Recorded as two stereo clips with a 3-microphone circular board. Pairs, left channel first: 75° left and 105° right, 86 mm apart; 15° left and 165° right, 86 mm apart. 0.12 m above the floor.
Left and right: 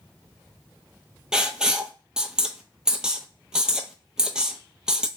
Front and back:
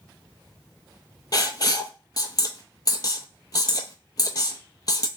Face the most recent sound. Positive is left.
turn(degrees=-25)